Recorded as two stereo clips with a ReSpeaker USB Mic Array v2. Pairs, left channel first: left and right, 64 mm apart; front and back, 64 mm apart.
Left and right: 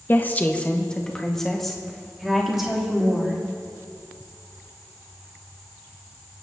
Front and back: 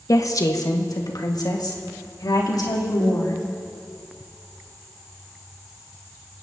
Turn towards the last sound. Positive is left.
turn(degrees=-10)